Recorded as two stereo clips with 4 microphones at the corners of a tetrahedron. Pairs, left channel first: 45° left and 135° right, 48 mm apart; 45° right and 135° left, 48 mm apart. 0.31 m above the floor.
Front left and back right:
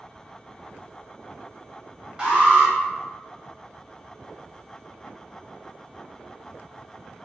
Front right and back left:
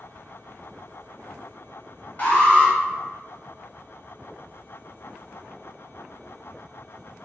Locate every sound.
2.2 s an alarm: 75° right, 1.7 m